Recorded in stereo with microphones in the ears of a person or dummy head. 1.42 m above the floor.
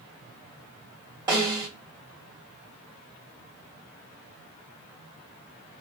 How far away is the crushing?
No crushing in this recording.